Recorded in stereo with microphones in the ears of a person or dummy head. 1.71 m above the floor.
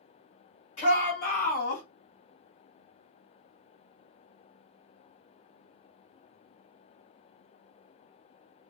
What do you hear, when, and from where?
0.8 s a shout: 30° left (ahead or behind), 2.5 m; by 1.8 s 45° left (ahead or behind), 2 m